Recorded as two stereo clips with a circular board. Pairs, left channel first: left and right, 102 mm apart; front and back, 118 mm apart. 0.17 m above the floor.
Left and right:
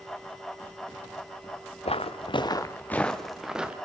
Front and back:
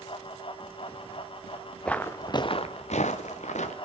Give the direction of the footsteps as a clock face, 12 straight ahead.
9 o'clock.